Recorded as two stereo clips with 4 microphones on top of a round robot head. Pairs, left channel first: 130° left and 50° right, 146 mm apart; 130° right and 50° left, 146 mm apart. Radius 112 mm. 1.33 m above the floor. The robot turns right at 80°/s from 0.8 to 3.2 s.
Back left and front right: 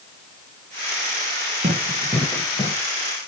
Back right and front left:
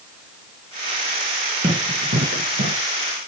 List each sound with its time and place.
1.6 s running footsteps: 5° right, 6 m; by 2.8 s 80° left, 7.5 m